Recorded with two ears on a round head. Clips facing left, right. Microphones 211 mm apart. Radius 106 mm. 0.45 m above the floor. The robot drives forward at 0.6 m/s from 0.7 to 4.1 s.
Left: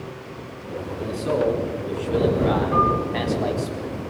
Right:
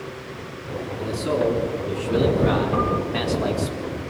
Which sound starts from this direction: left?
A piano, at 2.7 s.